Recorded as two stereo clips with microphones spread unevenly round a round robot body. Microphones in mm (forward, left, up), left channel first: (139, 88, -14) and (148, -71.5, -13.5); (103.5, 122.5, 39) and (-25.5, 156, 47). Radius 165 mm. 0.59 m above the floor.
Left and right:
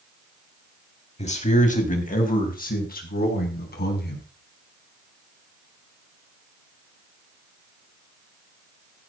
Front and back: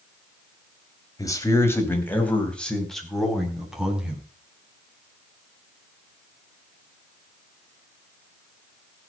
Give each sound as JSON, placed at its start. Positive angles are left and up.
{"t": 1.2, "sound": "a man speaking", "azimuth_deg": 50, "distance_m": 3.5}